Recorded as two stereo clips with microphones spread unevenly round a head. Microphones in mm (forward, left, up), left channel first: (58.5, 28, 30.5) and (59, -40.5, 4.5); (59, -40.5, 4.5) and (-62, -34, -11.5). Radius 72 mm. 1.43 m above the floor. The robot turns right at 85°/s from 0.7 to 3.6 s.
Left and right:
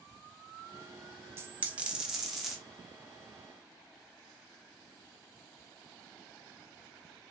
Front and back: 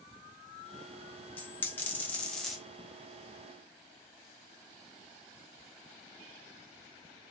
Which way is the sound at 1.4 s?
30° right.